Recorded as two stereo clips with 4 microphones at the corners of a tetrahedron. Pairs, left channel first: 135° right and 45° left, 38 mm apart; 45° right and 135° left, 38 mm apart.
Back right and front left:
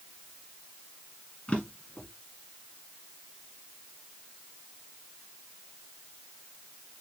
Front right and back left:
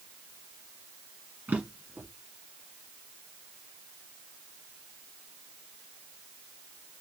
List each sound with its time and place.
1.5 s a drawer: 165° left, 1.8 m